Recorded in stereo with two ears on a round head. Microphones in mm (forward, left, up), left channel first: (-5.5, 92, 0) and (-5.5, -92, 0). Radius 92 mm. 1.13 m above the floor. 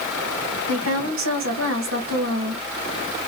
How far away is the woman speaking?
About 1.8 m.